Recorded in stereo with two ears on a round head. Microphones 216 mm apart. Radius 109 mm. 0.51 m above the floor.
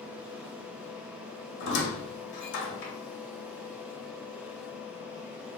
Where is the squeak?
50° left (ahead or behind), 0.8 m.